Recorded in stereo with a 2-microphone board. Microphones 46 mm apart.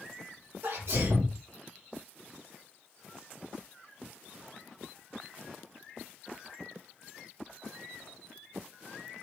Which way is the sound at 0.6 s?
60° right (ahead or behind).